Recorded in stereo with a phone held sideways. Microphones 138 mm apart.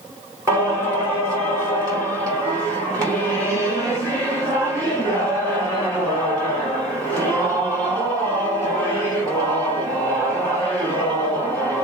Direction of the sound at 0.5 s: 25° right (ahead or behind).